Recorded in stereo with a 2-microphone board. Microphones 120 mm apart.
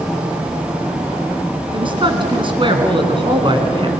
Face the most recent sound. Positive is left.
turn(degrees=-45)  # may be behind; listen again after turning